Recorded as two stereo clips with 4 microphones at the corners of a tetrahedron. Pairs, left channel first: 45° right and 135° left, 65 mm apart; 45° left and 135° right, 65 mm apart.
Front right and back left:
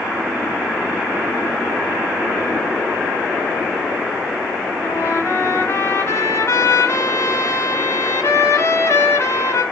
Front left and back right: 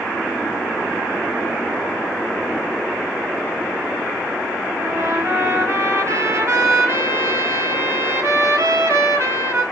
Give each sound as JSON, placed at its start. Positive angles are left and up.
{"t": 4.8, "sound": "a trumpet", "azimuth_deg": -90, "distance_m": 1.9}